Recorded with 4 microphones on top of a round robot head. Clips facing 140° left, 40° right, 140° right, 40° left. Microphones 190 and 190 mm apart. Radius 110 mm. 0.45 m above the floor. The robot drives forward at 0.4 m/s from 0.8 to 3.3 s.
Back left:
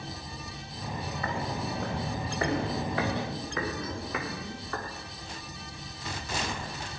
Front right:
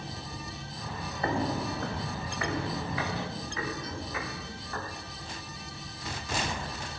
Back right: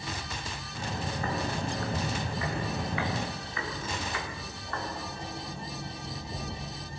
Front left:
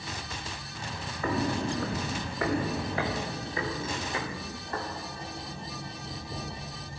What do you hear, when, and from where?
1.2 s footsteps: 20° left, 1.7 m; by 4.8 s 110° left, 5.5 m